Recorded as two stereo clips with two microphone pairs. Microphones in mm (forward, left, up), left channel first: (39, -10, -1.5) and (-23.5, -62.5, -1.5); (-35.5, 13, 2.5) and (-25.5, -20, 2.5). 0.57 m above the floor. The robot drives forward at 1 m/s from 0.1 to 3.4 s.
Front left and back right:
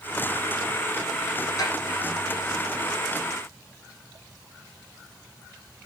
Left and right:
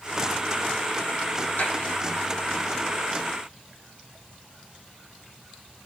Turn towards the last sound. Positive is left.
turn(degrees=95)